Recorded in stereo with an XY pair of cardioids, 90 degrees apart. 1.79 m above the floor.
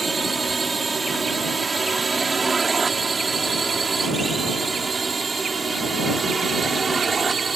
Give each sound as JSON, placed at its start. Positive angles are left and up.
{"t": 0.0, "sound": "a drone", "azimuth_deg": -25}